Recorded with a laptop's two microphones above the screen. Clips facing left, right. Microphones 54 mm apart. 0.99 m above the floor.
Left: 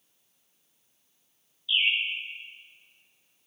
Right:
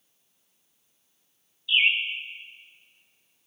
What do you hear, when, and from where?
1.7 s a bird: 75° right (ahead or behind), 1.1 m